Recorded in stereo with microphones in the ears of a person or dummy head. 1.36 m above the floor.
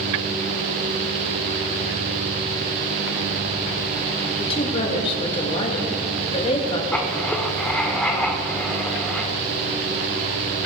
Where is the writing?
5° left (ahead or behind), 1.5 m.